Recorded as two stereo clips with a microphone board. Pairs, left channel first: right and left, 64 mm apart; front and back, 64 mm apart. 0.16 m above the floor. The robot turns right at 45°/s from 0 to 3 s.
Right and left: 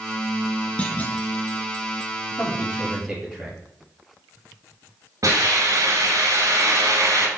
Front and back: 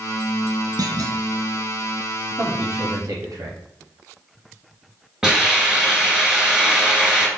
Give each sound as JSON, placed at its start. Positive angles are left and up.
{"t": 0.8, "sound": "a clunk", "azimuth_deg": -160, "distance_m": 1.0}
{"t": 2.4, "sound": "a man speaking", "azimuth_deg": 150, "distance_m": 3.0}
{"t": 5.2, "sound": "a hiss", "azimuth_deg": 100, "distance_m": 2.5}